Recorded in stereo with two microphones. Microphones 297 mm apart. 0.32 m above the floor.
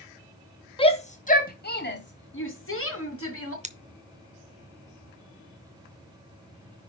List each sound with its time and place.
0.8 s a shout: 15° left (ahead or behind), 2 m; by 3.5 s 45° left (ahead or behind), 4 m
3.6 s scissors: 20° right (ahead or behind), 0.8 m